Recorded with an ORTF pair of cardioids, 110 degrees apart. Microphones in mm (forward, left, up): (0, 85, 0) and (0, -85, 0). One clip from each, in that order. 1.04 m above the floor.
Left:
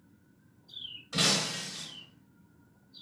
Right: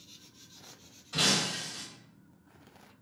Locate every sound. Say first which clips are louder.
1.1 s breaking glass: even; 30° left, 1.2 m